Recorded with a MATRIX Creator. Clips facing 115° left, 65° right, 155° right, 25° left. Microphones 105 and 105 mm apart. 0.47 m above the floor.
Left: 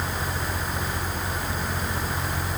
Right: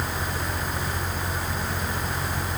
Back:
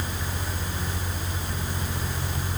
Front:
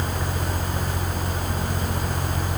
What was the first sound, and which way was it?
Only background noise.